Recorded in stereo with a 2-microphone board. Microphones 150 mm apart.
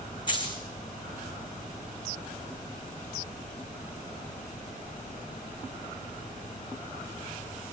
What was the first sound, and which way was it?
A dropped coin, 30° left (ahead or behind).